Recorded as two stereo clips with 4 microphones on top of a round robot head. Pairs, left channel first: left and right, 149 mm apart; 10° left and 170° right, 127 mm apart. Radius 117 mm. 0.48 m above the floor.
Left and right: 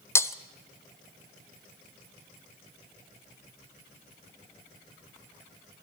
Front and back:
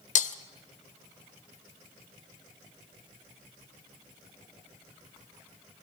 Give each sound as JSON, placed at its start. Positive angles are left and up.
{"t": 0.1, "sound": "breaking glass", "azimuth_deg": 20, "distance_m": 1.1}